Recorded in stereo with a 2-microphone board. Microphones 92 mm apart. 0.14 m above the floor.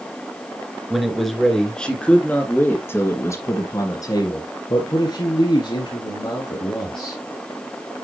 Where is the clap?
I don't hear a clap.